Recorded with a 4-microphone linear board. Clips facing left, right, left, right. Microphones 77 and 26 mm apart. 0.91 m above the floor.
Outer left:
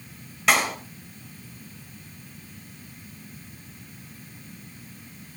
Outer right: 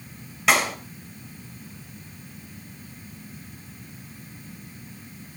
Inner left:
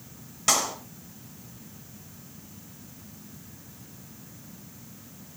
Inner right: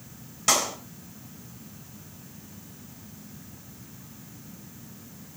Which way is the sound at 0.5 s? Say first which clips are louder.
Outer right 1 dB, inner right 1 dB; centre (ahead or behind).